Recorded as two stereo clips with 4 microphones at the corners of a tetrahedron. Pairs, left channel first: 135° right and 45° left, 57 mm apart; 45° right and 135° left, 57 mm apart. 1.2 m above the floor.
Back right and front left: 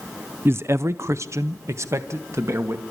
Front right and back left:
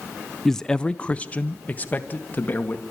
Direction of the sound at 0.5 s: 40° left.